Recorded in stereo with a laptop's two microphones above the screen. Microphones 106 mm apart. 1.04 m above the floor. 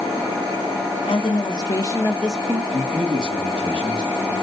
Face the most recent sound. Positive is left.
turn(degrees=-50)  # may be behind; listen again after turning